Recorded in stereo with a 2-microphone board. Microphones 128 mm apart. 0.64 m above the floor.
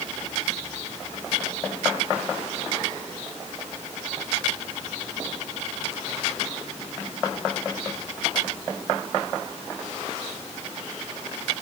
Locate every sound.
Only background noise.